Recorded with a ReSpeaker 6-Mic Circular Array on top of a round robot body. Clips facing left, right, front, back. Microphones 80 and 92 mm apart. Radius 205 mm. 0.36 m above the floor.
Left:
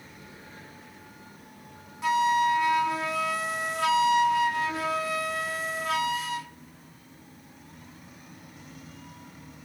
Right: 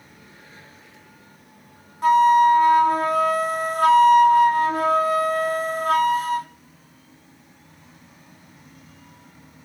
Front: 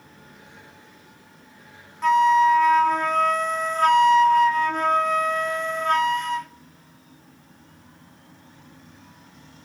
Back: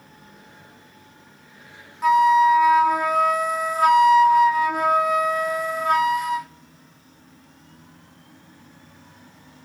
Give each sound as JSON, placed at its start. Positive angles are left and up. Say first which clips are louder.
{"t": 2.0, "sound": "a flute", "louder": "right 9 dB, back 1 dB", "azimuth_deg": -100, "distance_m": 0.8}